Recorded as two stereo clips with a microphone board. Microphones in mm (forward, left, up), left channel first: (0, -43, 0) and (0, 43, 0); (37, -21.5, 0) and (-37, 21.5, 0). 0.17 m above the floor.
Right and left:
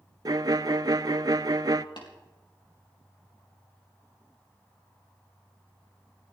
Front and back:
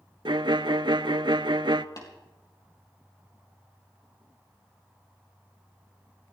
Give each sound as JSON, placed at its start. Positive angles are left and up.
{"t": 0.2, "sound": "a violin", "azimuth_deg": 130, "distance_m": 0.5}
{"t": 2.0, "sound": "tapping", "azimuth_deg": -70, "distance_m": 4.5}